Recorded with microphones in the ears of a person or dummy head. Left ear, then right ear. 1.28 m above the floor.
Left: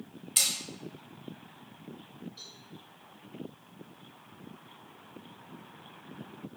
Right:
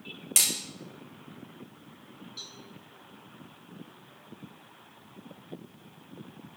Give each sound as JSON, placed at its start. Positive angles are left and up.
{"t": 0.4, "sound": "hammering", "side_deg": -30, "distance_m": 1.8}
{"t": 2.4, "sound": "a cowbell", "side_deg": -30, "distance_m": 5.0}